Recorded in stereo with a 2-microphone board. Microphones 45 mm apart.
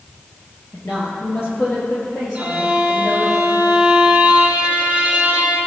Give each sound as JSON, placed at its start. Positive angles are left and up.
{"t": 0.7, "sound": "a woman speaking", "side_deg": 55, "distance_m": 3.0}
{"t": 2.4, "sound": "a violin", "side_deg": -20, "distance_m": 1.7}